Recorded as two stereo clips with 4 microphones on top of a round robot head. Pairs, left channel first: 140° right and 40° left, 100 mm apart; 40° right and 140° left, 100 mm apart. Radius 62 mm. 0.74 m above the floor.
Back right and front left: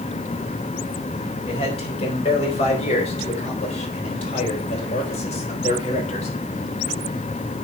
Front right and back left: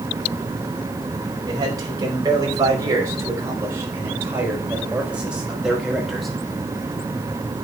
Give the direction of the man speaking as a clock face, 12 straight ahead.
6 o'clock.